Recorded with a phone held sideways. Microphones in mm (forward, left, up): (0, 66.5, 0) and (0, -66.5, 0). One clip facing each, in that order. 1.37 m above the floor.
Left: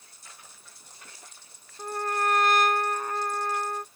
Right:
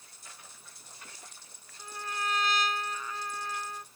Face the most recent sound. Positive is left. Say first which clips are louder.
# left 9 dB
turn(degrees=55)  # may be behind; listen again after turning